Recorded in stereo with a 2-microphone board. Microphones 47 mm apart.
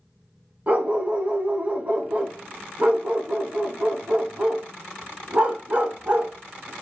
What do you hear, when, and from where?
0.7 s a dog barking: 30° right (ahead or behind), 1.1 m